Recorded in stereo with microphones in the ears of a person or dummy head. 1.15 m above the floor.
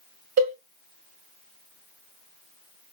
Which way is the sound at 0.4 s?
35° right (ahead or behind).